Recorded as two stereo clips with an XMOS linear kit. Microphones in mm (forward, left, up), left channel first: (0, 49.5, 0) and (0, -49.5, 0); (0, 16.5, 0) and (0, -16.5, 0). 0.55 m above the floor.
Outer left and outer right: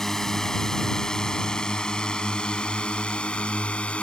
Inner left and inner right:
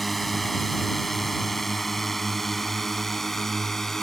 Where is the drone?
5° left (ahead or behind); by 4.0 s 10° left (ahead or behind).